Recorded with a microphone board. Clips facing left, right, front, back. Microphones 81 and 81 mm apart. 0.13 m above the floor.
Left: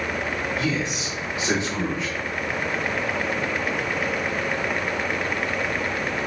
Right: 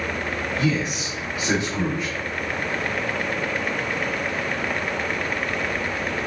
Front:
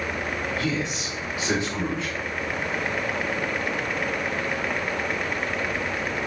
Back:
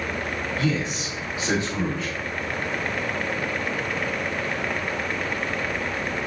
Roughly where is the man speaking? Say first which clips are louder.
Right 2 dB, back 2 dB; behind right.